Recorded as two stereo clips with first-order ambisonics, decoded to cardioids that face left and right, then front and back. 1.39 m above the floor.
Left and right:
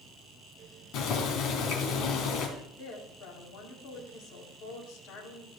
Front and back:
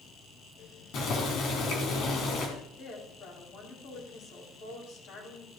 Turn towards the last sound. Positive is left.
turn(degrees=50)